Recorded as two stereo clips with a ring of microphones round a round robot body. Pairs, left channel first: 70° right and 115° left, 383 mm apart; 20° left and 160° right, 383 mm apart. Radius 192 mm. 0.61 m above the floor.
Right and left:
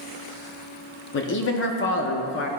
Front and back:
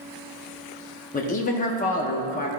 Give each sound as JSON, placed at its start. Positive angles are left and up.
{"t": 1.1, "sound": "a man speaking", "azimuth_deg": -35, "distance_m": 0.6}